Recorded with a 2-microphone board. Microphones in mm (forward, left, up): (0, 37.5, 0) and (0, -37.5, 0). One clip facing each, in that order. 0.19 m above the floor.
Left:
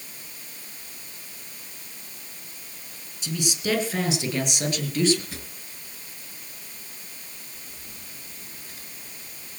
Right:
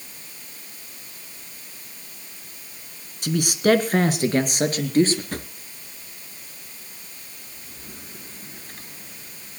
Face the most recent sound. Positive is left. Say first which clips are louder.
# right 7 dB
turn(degrees=-45)  # may be behind; listen again after turning